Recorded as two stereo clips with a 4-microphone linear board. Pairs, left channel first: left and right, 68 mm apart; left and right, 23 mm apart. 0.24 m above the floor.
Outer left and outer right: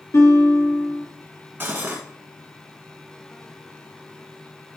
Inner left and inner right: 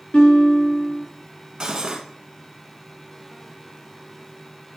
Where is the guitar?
60° left (ahead or behind), 4 m.